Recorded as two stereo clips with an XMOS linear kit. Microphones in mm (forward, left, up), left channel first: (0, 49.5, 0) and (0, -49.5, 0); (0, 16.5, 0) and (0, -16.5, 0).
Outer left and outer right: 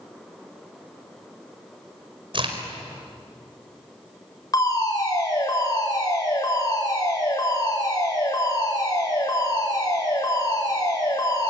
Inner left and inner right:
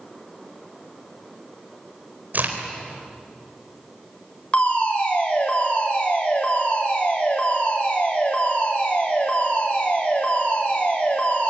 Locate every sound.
2.3 s a crack: 55° right (ahead or behind), 4 m
4.5 s a fire alarm: 35° left (ahead or behind), 7 m